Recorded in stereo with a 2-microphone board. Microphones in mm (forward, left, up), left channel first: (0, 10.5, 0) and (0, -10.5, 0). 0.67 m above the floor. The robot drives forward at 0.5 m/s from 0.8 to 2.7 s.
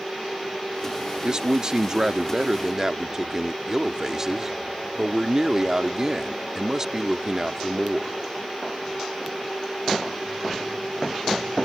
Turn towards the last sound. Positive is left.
turn(degrees=-30)  # may be behind; listen again after turning